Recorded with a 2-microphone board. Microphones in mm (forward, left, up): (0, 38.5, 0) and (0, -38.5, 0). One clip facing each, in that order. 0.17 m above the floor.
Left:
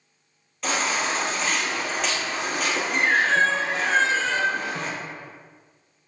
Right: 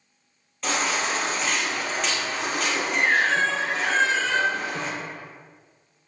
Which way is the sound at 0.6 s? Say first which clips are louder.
Even; centre (ahead or behind).